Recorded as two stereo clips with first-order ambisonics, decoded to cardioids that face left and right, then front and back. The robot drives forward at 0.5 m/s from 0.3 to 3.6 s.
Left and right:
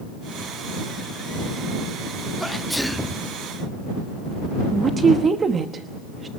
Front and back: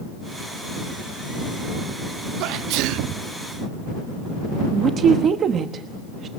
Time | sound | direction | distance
2.4 | a sneeze | straight behind | 0.7 m
4.7 | a woman speaking | 145° right | 1.0 m